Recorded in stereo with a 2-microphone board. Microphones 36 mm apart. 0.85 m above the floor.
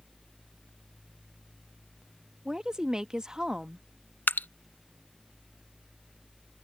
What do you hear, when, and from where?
2.5 s a woman speaking: 20° right (ahead or behind)
4.3 s dripping: 65° left (ahead or behind)